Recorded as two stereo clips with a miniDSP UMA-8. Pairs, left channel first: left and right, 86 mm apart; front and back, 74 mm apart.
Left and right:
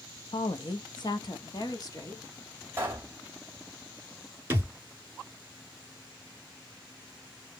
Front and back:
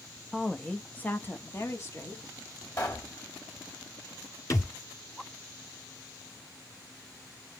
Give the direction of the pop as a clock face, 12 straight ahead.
1 o'clock.